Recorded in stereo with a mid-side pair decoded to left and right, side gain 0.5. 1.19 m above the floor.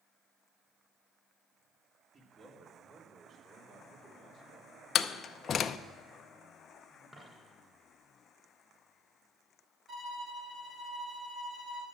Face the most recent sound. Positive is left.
turn(degrees=-40)